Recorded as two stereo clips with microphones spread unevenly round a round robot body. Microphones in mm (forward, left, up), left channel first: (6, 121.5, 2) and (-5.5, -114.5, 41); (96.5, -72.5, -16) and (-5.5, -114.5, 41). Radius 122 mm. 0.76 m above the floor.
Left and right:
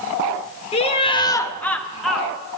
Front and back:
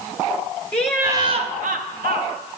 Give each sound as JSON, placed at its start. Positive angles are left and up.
{"t": 0.7, "sound": "laughter", "azimuth_deg": 45, "distance_m": 0.7}